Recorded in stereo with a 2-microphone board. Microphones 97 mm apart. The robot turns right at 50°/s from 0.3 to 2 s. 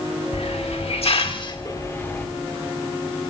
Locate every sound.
0.3 s a hiss: 75° left, 1.6 m; by 2.2 s 155° left, 1.6 m